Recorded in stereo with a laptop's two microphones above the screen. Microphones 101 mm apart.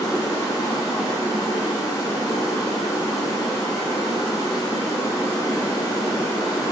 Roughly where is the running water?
Left.